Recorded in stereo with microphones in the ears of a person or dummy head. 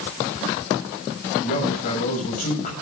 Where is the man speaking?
45° left (ahead or behind), 7 m.